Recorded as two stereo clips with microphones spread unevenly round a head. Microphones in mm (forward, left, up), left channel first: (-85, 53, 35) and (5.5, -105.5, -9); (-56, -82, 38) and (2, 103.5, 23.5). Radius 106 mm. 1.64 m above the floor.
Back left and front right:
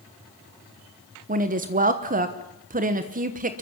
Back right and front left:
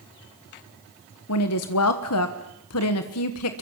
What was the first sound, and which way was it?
A woman speaking, 110° right.